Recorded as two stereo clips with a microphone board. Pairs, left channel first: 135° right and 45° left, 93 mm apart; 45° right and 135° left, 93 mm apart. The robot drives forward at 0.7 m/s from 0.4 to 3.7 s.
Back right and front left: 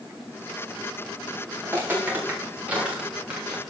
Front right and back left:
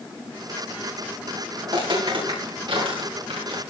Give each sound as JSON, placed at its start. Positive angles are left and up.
{"t": 1.6, "sound": "footsteps", "azimuth_deg": 110, "distance_m": 9.0}